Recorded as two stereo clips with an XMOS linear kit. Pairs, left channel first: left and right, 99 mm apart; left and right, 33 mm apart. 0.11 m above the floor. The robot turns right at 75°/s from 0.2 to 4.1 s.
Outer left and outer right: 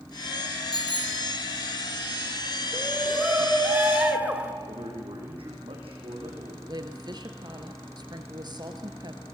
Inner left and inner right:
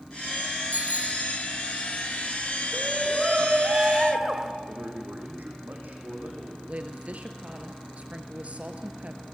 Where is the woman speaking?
50° right (ahead or behind), 2 m.